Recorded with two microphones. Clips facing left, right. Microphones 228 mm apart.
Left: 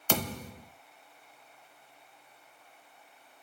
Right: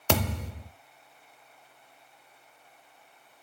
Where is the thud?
70° right (ahead or behind), 0.9 m.